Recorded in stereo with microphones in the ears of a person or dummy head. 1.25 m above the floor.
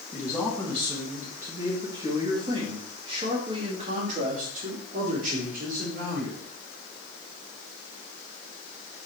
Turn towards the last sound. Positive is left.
turn(degrees=-65)  # may be behind; listen again after turning